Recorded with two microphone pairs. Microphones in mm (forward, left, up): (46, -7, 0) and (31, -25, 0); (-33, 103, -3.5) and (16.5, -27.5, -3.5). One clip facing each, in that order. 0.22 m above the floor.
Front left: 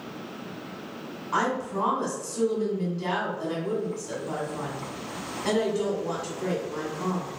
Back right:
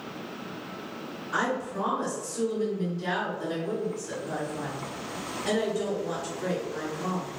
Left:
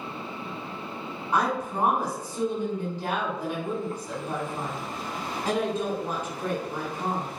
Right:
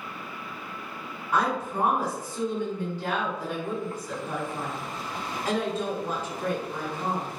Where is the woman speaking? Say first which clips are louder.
Front left 2 dB, even; 50° left, 1.6 m.